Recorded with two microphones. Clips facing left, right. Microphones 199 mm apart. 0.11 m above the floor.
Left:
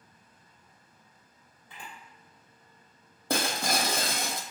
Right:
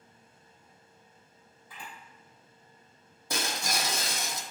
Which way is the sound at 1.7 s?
25° left (ahead or behind).